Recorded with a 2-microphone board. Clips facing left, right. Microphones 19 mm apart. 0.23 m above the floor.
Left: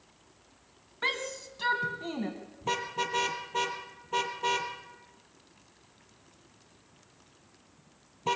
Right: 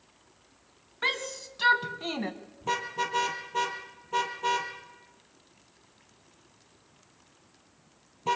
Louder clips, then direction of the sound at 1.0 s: Right 2 dB; 5° right (ahead or behind).